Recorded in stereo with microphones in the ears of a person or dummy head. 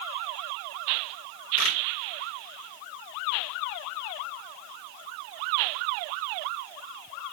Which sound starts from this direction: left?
A camera shutter, at 1.6 s.